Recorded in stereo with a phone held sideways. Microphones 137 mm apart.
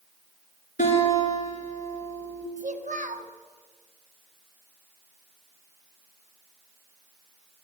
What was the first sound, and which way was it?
A guitar, 75° left (ahead or behind).